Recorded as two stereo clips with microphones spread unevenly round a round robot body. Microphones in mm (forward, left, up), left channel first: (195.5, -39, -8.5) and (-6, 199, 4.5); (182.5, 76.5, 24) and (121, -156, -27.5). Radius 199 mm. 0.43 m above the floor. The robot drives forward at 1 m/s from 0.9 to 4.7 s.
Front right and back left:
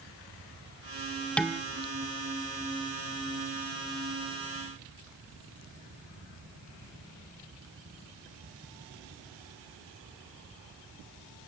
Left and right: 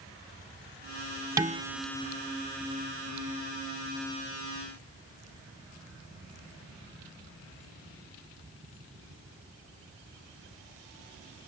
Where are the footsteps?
I don't hear footsteps.